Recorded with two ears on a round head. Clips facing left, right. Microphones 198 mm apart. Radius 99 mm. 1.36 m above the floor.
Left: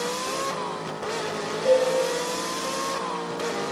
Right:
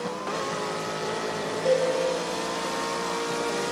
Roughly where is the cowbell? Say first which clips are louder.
Left 3 dB; centre.